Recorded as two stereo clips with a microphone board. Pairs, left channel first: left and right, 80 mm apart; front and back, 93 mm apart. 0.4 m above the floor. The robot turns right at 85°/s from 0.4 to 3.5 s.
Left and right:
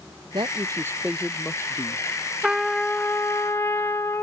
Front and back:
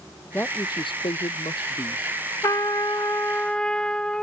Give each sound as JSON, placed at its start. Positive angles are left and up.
{"t": 0.3, "sound": "a man speaking", "azimuth_deg": -70}
{"t": 2.4, "sound": "a trumpet", "azimuth_deg": -15}